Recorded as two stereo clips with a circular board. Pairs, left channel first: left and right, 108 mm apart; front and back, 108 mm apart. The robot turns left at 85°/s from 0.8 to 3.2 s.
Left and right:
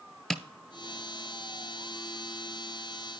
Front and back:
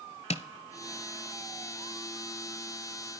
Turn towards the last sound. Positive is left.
turn(degrees=160)